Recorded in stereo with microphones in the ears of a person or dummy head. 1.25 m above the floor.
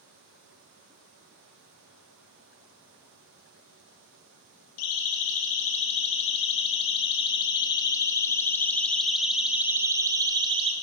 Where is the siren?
50° left (ahead or behind), 3 m; by 10.7 s 30° right (ahead or behind), 1.5 m.